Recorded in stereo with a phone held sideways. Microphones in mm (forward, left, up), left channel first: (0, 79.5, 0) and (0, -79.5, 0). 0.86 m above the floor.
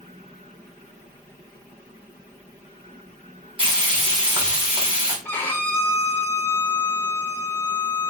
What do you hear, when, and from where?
3.6 s frying: 35° right (ahead or behind), 2.0 m
5.2 s a violin: 15° left (ahead or behind), 0.8 m